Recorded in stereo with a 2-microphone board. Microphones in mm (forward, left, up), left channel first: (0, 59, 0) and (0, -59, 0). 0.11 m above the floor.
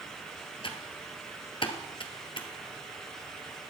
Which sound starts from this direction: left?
Typing on a keyboard, at 0.6 s.